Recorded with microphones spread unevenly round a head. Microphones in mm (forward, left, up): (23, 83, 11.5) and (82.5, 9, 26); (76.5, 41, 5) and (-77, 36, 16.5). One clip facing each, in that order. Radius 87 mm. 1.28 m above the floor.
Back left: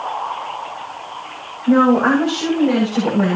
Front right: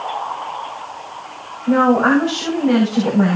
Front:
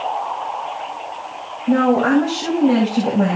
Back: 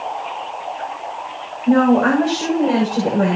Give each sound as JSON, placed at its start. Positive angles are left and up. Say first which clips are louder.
{"t": 1.7, "sound": "a woman speaking", "louder": "back left 1 dB, back 2 dB", "azimuth_deg": -145, "distance_m": 7.0}